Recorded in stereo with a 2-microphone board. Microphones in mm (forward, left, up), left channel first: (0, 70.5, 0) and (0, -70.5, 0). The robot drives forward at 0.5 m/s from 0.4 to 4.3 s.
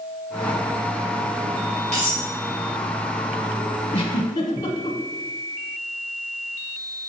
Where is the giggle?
45° left (ahead or behind), 0.6 m; by 5.0 s 35° left (ahead or behind), 0.8 m.